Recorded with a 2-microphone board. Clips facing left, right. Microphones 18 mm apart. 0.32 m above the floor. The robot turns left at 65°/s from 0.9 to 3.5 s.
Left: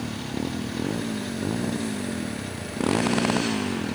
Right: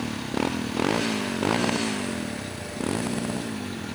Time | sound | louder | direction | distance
0.0 | a motorcycle | right 3 dB | 80° right | ?